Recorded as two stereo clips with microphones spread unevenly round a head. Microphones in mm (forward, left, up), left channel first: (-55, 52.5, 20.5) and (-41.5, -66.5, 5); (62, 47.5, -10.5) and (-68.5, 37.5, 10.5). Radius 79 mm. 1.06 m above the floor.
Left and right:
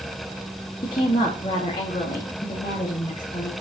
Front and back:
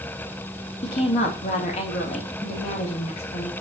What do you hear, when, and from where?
0.8 s a woman speaking: 35° left, 2.5 m